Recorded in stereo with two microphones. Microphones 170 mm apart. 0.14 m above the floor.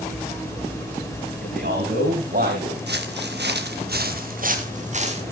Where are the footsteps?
80° right, 1.9 m; by 5.2 s 40° right (ahead or behind), 2.5 m.